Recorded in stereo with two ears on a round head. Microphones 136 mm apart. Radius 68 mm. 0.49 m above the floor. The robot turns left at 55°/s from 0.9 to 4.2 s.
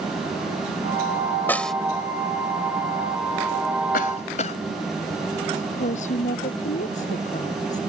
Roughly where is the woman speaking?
Left.